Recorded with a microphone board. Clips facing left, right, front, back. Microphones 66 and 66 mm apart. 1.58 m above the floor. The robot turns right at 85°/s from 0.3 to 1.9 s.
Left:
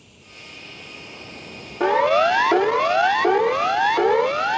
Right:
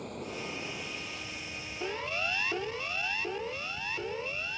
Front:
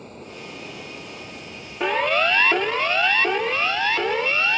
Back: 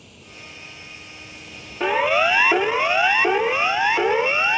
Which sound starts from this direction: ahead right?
Running water, at 0.0 s.